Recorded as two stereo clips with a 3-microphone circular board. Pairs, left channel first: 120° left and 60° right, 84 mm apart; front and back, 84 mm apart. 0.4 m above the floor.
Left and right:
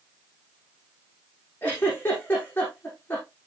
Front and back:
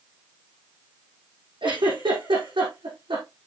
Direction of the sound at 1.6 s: 170° right.